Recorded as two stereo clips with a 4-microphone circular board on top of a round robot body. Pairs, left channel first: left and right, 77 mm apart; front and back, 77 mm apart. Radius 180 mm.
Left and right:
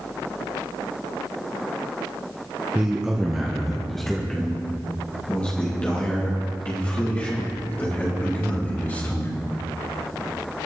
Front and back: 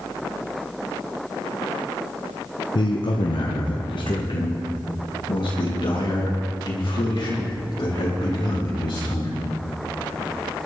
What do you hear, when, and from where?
2.8 s a man speaking: 15° right, 1.4 m; by 9.3 s 25° left, 4.5 m